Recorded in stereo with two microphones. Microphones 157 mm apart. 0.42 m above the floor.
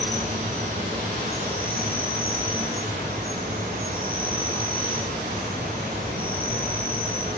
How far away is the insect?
About 5.5 m.